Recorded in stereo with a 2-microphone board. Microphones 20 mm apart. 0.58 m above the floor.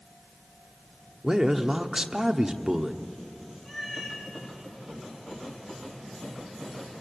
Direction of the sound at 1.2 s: 20° right (ahead or behind).